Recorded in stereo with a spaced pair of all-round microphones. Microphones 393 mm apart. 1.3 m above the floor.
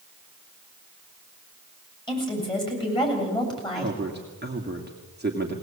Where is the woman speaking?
10° left (ahead or behind), 7.5 m.